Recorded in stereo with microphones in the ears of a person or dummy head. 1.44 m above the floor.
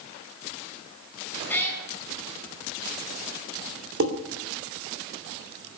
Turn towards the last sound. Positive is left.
turn(degrees=-65)  # may be behind; listen again after turning